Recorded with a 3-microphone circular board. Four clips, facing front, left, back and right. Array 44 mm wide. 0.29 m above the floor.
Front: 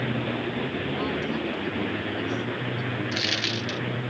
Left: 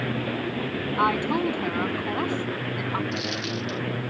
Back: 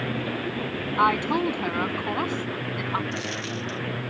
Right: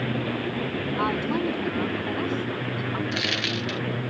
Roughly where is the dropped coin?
Ahead right.